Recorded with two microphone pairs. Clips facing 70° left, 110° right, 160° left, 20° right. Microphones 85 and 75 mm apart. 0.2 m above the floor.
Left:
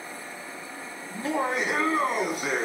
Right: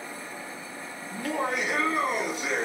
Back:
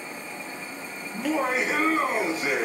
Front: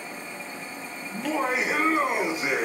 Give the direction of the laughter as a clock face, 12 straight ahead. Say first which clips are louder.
Left 2 dB, back 1 dB; 10 o'clock.